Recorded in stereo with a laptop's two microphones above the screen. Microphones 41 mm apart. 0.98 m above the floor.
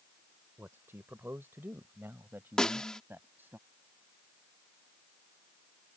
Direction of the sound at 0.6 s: 75° right (ahead or behind).